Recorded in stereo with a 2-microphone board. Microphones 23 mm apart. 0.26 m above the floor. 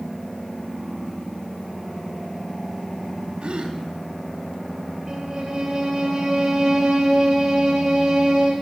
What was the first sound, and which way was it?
A gasp, 45° right (ahead or behind).